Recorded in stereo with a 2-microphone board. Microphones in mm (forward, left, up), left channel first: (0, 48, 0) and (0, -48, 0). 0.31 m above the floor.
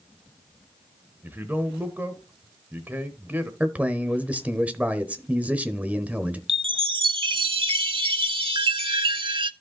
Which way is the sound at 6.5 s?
60° right (ahead or behind).